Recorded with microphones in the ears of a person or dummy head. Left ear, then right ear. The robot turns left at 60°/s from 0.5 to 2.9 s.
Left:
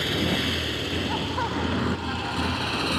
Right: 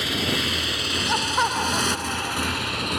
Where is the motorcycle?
25° right (ahead or behind); by 3.0 s 5° right (ahead or behind).